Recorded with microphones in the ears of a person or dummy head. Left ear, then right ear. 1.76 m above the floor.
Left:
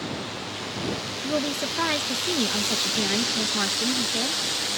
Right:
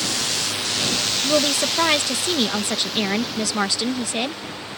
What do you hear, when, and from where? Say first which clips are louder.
0.0 s a drone: right 10 dB; 55° right (ahead or behind); by 4.8 s 40° left (ahead or behind)
1.2 s a woman speaking: right 5 dB; 30° right (ahead or behind)